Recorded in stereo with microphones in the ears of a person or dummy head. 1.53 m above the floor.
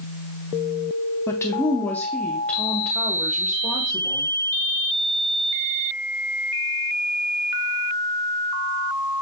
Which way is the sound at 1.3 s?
15° left (ahead or behind).